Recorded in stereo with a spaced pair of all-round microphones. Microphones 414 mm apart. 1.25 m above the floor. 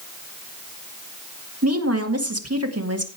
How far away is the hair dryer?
I don't hear a hair dryer.